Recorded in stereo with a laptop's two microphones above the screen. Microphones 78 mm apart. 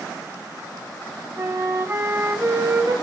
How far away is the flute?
About 4.5 m.